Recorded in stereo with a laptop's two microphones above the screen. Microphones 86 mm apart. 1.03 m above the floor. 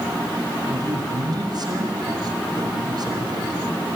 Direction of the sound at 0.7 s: 55° right (ahead or behind).